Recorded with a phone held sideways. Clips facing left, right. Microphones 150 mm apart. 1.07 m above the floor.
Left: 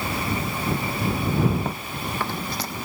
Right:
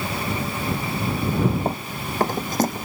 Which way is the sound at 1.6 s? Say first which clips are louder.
Right 3 dB; 35° right (ahead or behind).